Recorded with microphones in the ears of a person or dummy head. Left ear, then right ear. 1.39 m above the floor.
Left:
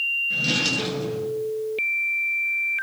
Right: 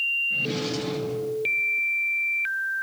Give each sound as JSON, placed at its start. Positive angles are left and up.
{"t": 0.3, "sound": "a drawer", "side_deg": 70, "distance_m": 8.0}